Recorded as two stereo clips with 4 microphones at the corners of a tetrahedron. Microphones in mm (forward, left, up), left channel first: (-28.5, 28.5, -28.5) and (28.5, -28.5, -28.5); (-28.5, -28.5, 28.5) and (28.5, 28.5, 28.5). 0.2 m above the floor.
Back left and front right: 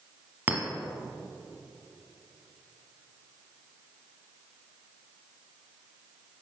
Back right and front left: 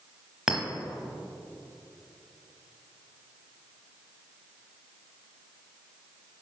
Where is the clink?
35° right, 0.9 m.